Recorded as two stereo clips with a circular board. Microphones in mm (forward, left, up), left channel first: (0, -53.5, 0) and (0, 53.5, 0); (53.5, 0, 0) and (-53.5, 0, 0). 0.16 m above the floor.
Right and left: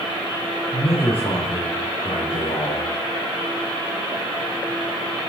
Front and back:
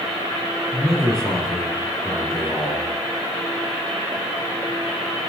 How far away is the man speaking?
About 3.5 m.